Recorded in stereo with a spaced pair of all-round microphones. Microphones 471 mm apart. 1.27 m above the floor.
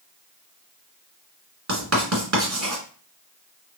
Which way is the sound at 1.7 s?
35° right (ahead or behind).